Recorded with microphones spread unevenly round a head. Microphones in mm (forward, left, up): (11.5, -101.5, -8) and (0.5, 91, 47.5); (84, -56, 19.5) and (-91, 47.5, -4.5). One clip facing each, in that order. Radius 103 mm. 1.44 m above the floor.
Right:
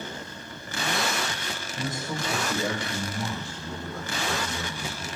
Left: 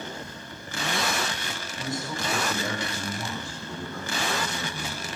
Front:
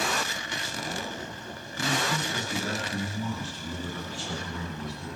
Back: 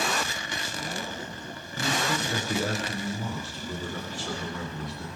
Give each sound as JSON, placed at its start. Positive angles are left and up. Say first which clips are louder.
{"t": 1.8, "sound": "a man speaking", "louder": "even, back 1 dB", "azimuth_deg": -155, "distance_m": 6.0}